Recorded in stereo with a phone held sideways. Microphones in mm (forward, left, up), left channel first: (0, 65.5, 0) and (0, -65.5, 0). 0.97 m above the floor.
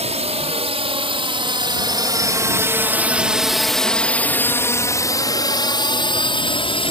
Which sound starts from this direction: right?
A drone, at 0.0 s.